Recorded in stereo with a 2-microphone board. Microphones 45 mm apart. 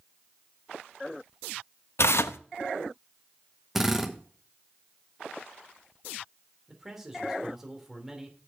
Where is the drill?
5° right (ahead or behind), 1.1 m.